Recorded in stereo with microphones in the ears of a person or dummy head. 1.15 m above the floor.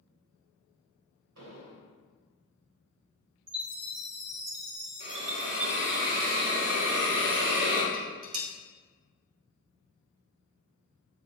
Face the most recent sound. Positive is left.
turn(degrees=-35)  # may be behind; listen again after turning